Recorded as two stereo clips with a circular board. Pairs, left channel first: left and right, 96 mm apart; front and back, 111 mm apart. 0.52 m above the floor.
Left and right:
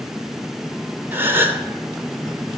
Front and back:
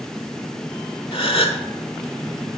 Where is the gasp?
25° right, 0.9 m.